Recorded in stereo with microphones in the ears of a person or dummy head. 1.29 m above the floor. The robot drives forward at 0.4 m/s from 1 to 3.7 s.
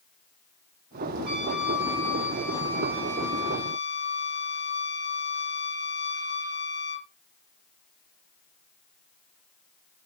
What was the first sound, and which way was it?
A trumpet, 10° right (ahead or behind).